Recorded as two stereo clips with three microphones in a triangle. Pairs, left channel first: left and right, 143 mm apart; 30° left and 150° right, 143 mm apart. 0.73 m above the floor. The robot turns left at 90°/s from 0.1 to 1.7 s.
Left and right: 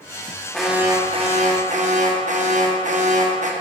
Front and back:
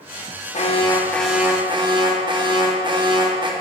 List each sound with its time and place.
0.5 s an alarm: 5° left, 1.0 m; by 3.5 s 95° right, 1.0 m